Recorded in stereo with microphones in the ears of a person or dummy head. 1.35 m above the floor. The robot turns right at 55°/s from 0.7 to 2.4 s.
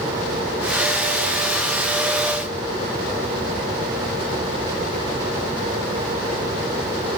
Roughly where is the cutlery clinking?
No cutlery clinking in this recording.